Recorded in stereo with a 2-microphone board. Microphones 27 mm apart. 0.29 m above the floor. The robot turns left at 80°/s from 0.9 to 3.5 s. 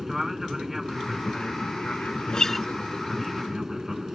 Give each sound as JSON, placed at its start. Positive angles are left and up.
{"t": 0.0, "sound": "an aircraft", "azimuth_deg": -165}
{"t": 2.3, "sound": "a guitar", "azimuth_deg": 35}